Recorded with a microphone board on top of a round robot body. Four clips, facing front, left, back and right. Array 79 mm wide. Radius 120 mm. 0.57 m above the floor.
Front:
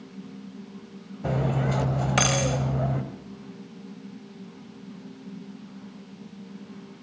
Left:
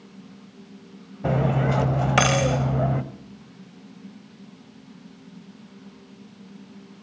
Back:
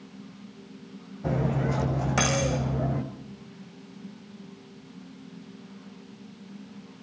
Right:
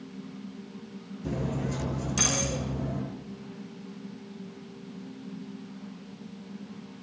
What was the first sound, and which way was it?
Cutlery clinking, 80° left.